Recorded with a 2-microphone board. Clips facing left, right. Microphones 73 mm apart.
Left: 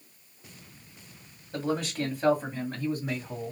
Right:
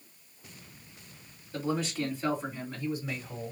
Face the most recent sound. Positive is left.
turn(degrees=45)  # may be behind; listen again after turning